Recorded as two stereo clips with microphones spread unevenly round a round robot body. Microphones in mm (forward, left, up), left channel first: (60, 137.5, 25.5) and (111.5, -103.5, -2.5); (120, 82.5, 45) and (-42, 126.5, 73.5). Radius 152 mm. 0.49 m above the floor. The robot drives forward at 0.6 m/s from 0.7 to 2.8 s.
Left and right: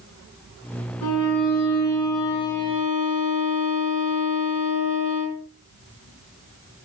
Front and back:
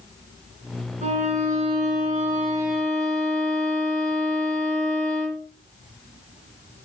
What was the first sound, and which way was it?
A violin, 120° left.